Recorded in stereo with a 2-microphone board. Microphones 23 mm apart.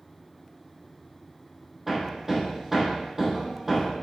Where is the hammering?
15° right (ahead or behind), 3.5 m.